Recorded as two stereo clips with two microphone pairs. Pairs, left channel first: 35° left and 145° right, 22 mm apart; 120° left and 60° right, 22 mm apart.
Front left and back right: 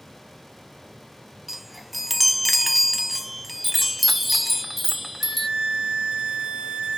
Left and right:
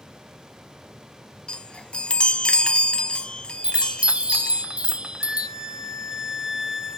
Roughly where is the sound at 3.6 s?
Ahead right.